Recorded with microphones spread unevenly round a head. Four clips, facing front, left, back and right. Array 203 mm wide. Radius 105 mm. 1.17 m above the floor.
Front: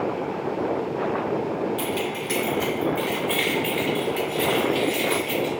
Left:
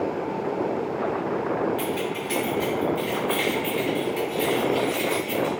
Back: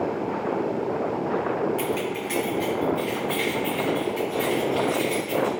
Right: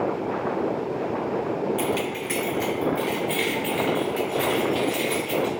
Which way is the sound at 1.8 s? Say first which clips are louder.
Right 1 dB, even; 90° right.